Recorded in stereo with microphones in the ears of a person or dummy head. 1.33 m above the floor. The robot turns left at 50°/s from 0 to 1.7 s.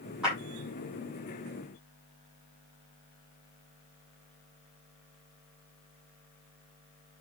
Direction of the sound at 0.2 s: Centre (ahead or behind).